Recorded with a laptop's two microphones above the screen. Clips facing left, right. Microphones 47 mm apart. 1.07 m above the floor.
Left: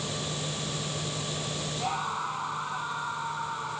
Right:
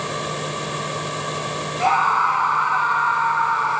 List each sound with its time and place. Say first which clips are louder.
0.0 s a fan: right 9 dB; 90° right
1.8 s a scream: right 15 dB; 75° right (ahead or behind)